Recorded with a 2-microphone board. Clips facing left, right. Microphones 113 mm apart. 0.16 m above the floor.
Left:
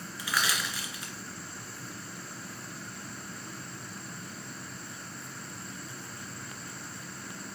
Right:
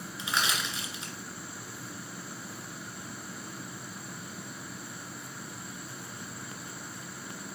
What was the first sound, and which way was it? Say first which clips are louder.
Crushing: even; 25° right (ahead or behind).